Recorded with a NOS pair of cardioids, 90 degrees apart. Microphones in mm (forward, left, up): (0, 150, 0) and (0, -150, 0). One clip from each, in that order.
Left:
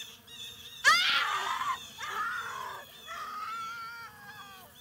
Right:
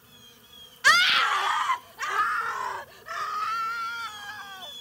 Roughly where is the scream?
Ahead.